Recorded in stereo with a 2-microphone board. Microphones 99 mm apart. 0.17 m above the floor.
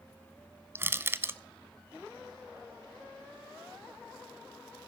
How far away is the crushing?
About 0.5 m.